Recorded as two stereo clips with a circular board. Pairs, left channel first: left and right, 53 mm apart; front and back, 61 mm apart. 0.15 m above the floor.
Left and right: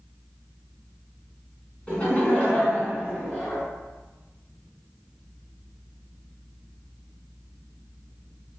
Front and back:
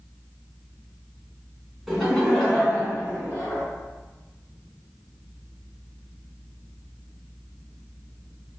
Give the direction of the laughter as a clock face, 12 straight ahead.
9 o'clock.